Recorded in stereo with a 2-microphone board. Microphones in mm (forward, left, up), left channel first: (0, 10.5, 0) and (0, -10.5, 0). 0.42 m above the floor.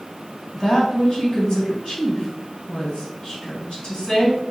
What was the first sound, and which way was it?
A woman speaking, 40° left (ahead or behind).